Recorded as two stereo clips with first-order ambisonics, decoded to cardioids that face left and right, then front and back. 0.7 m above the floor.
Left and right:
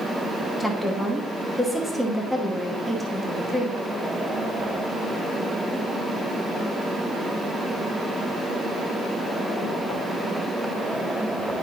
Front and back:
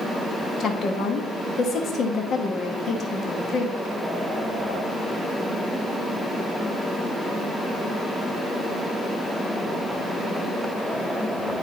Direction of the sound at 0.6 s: 10° right.